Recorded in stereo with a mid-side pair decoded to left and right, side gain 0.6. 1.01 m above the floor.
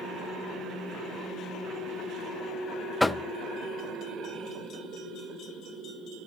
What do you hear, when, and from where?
3.0 s knocking: 10° left, 0.9 m